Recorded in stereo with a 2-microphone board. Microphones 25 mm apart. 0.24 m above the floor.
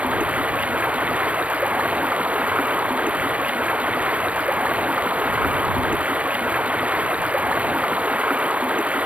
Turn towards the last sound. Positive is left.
turn(degrees=-60)  # may be behind; listen again after turning